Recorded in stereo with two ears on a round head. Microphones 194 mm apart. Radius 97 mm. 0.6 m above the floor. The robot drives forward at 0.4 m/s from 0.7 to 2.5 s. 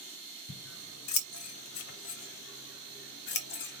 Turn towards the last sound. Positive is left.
turn(degrees=55)  # may be behind; listen again after turning